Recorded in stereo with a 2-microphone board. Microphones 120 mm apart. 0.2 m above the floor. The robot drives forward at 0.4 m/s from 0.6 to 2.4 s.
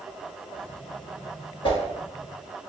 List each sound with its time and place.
1.6 s a whoosh: 45° left (ahead or behind), 0.7 m